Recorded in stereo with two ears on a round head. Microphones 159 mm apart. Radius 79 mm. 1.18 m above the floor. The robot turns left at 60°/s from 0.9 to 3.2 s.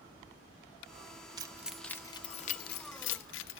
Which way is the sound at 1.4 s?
20° right (ahead or behind).